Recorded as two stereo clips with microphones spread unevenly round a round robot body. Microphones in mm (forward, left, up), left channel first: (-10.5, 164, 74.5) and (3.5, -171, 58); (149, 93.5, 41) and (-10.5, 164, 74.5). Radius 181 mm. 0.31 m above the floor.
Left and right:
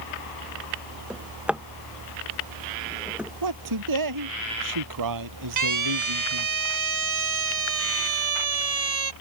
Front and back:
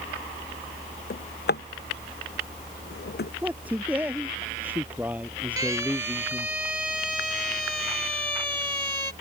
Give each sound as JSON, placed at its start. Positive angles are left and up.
{"t": 1.1, "sound": "a drawer", "azimuth_deg": 0}
{"t": 3.4, "sound": "a man speaking", "azimuth_deg": -120}
{"t": 5.6, "sound": "a siren", "azimuth_deg": -125}